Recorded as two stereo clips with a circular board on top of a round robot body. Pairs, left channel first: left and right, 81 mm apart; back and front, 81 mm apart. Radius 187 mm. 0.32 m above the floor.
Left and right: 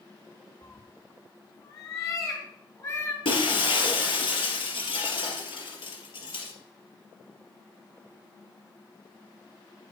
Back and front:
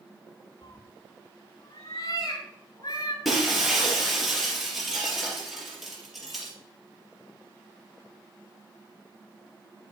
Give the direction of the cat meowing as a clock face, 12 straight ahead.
8 o'clock.